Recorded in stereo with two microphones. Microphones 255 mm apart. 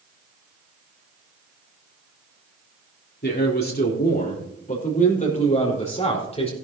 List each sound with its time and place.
3.2 s a man speaking: 45° left (ahead or behind), 4 m; by 6.5 s 25° left (ahead or behind), 5.5 m